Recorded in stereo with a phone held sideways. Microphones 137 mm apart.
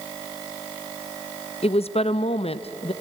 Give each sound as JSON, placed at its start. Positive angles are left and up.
{"t": 1.6, "sound": "a woman speaking", "side_deg": 45, "distance_m": 0.7}